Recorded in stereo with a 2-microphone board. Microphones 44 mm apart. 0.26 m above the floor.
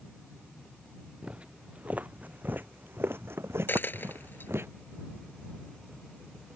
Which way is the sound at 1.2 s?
25° right (ahead or behind).